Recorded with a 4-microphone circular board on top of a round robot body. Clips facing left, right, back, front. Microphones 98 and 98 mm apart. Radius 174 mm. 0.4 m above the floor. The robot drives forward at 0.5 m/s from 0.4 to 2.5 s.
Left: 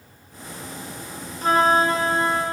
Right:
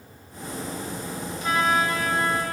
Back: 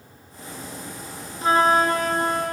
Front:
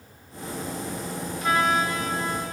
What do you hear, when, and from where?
1.4 s a flute: 125° left, 0.7 m; by 2.5 s 155° left, 1.1 m